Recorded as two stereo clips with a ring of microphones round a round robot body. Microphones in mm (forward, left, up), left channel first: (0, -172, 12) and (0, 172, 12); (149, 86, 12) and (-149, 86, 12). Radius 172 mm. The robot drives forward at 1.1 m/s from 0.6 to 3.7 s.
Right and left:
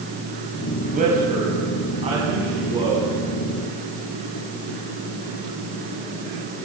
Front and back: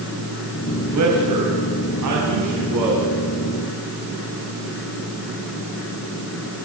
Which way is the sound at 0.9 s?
155° left.